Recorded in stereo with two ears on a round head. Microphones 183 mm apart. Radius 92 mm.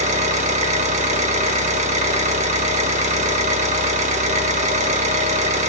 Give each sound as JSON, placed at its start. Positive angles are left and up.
{"t": 0.0, "sound": "an engine running", "side_deg": -35, "distance_m": 1.6}